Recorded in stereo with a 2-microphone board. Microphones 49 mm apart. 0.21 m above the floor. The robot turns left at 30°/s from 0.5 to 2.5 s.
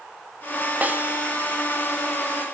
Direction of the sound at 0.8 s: 30° right (ahead or behind).